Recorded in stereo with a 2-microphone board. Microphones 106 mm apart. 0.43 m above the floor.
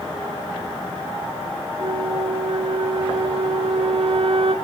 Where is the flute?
65° right (ahead or behind), 0.7 m.